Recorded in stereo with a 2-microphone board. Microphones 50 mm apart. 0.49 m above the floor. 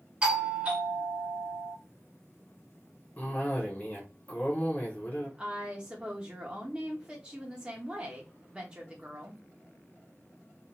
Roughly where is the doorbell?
Right.